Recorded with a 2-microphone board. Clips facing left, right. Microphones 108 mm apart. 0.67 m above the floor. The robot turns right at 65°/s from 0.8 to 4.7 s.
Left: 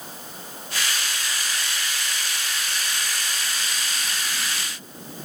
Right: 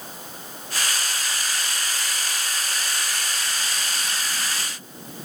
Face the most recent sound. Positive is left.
No sound to turn to.